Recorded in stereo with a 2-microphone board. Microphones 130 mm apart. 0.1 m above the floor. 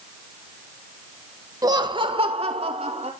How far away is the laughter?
About 1.3 m.